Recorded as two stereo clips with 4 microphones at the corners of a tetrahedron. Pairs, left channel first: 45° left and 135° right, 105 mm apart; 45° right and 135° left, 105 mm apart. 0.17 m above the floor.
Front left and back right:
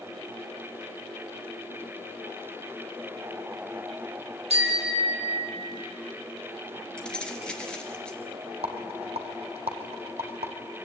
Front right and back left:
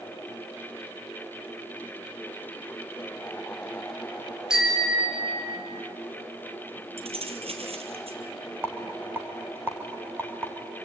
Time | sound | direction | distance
4.5 | a bicycle bell | 140° right | 4 m
7.0 | keys jangling | 125° left | 2.5 m
8.6 | a rattle | 155° right | 2.5 m